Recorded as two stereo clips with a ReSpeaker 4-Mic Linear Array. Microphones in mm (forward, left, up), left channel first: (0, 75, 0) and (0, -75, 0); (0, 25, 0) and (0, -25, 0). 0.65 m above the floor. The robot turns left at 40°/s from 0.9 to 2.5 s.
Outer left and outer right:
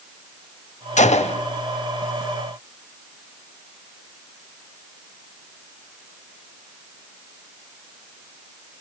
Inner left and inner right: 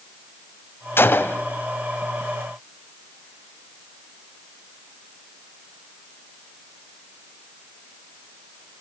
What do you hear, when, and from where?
1.0 s a gunshot: 55° left (ahead or behind), 0.7 m; by 1.4 s 40° left (ahead or behind), 0.7 m